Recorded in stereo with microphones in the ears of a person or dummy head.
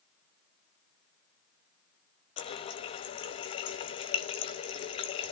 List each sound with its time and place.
2.4 s a running tap: 30° left (ahead or behind), 0.9 m